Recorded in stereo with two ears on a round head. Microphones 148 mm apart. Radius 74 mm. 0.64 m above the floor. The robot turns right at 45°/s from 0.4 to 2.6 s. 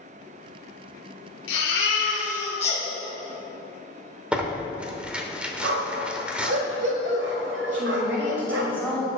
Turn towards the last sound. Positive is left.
turn(degrees=-15)  # may be behind; listen again after turning